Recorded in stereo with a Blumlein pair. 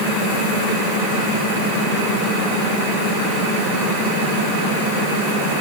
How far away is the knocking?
No knocking in this recording.